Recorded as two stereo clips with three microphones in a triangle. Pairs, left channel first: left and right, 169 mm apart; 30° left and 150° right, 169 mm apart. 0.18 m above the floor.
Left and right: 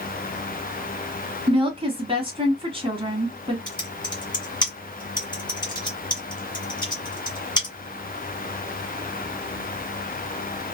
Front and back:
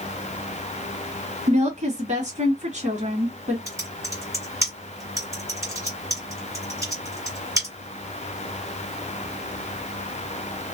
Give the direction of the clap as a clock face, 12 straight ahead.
No clap in this recording.